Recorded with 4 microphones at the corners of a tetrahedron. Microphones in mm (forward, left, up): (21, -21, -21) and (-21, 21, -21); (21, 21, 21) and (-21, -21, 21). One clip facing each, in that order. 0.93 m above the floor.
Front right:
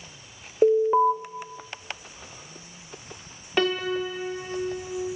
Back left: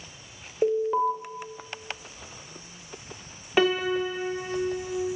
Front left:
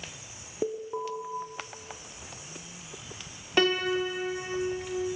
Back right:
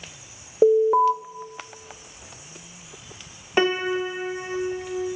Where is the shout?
I don't hear a shout.